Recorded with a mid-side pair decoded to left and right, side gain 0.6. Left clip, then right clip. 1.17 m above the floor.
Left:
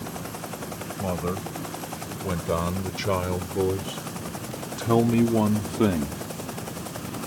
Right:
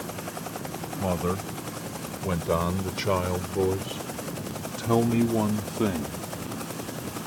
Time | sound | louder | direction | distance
1.0 | a man speaking | right 1 dB | 10° right | ?